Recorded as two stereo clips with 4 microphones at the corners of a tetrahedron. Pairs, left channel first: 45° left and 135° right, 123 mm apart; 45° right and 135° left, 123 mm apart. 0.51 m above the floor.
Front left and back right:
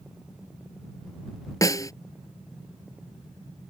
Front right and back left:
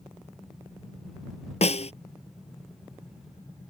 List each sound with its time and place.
1.6 s a snare drum: 20° right